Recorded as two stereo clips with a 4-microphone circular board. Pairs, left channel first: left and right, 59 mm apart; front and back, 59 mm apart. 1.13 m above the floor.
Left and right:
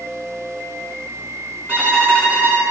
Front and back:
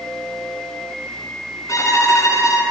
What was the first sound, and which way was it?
A violin, 35° right.